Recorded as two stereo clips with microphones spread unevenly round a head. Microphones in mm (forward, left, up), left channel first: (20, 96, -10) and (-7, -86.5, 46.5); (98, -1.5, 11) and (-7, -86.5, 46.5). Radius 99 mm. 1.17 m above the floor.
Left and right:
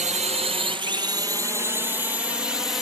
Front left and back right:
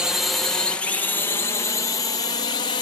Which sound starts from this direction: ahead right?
A drone, at 0.0 s.